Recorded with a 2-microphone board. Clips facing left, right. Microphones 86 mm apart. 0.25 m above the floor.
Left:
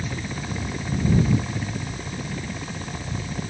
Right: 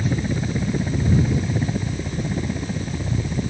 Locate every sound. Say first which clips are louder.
0.0 s a helicopter: right 7 dB; 25° right (ahead or behind); by 3.5 s 20° right (ahead or behind)